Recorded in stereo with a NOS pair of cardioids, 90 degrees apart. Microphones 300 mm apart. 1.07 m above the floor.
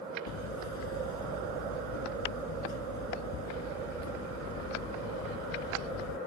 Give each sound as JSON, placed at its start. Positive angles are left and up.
{"t": 0.3, "sound": "hammering", "azimuth_deg": 65}